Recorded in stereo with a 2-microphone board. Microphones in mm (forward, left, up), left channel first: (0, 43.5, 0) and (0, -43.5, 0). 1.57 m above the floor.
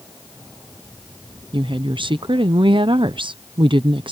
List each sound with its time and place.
1.5 s a woman speaking: 75° right (ahead or behind)